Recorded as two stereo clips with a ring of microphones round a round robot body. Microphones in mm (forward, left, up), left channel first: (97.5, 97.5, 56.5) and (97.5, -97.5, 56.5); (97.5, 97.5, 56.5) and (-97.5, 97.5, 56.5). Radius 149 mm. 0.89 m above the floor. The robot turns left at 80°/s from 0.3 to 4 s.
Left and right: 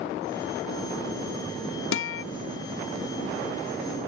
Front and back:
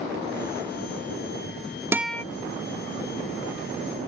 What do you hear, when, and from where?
1.9 s a guitar: 100° left; by 2.2 s 75° left